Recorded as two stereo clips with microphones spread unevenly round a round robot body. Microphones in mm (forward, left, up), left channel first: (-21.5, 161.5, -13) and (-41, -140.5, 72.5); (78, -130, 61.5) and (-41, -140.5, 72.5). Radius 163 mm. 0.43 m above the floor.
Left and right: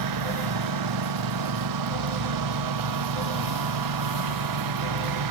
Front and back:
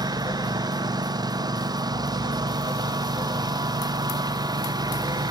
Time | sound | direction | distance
0.0 | a lawn mower | 115° right | ?